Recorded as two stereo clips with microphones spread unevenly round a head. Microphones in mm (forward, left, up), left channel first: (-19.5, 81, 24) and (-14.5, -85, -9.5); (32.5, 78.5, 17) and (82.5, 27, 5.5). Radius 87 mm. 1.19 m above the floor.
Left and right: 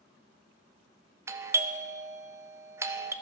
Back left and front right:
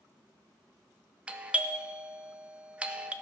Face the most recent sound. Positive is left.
turn(degrees=-75)